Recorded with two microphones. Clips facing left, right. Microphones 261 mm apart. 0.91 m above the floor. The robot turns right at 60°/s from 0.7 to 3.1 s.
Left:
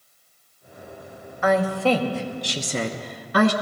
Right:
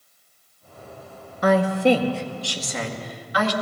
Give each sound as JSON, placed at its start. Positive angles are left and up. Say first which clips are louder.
{"t": 1.4, "sound": "a woman speaking", "louder": "right 2 dB", "side_deg": -40, "distance_m": 0.9}